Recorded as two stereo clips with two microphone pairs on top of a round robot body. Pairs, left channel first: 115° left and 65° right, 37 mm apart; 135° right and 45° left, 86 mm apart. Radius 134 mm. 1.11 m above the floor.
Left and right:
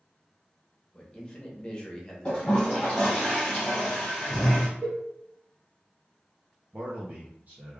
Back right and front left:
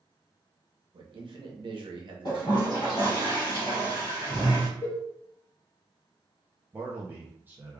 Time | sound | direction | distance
0.9 | a man speaking | 50° left | 1.2 m
2.2 | a toilet flushing | straight behind | 1.2 m
4.8 | a cowbell | 100° right | 1.7 m
6.7 | a man speaking | 25° right | 0.6 m